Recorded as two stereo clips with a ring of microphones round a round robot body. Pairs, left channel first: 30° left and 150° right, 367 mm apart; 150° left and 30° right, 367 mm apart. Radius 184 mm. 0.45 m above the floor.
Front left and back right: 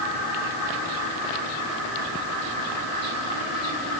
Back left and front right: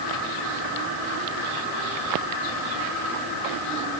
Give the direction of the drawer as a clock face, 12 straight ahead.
I don't hear a drawer.